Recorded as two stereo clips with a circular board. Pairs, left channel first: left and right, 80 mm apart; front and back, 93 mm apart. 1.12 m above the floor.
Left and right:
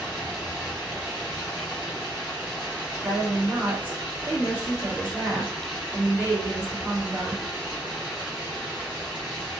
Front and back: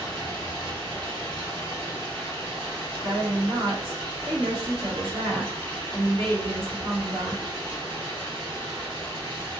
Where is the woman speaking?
155° right, 1.7 m.